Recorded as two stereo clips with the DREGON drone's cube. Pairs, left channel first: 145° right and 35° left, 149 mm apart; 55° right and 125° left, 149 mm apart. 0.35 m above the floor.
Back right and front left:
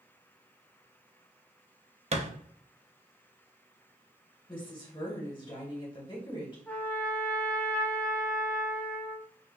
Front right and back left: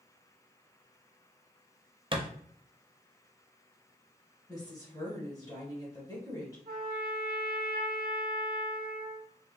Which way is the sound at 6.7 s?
135° left.